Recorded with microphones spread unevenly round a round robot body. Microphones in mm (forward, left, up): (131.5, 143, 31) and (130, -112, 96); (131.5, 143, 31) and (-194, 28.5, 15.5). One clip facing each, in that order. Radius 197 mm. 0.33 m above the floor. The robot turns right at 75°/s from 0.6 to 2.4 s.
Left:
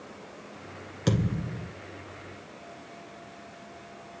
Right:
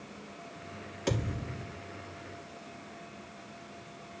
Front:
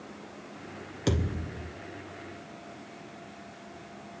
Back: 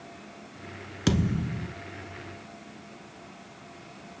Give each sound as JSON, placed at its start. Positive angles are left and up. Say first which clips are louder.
{"t": 1.1, "sound": "a thud", "louder": "left 5 dB, back 4 dB", "azimuth_deg": 135, "distance_m": 1.5}